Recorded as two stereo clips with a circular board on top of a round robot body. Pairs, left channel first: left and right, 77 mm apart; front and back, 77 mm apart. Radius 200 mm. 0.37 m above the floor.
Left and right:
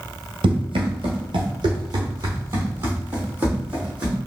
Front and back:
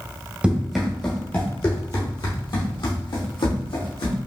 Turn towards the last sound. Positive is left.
turn(degrees=-15)